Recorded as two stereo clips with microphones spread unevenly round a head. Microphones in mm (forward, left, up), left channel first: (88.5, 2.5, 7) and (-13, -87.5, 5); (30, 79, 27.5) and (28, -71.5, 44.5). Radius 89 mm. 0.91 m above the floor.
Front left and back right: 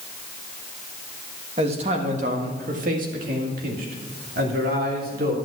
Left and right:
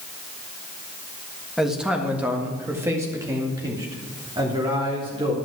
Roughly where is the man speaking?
Behind.